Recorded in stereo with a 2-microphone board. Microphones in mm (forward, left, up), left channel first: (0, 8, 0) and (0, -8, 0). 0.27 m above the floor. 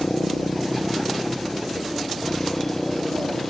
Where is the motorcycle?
60° left (ahead or behind); by 3.5 s 30° left (ahead or behind).